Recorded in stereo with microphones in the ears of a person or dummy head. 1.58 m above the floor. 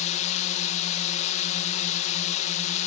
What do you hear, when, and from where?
0.0 s a drone: 35° left (ahead or behind)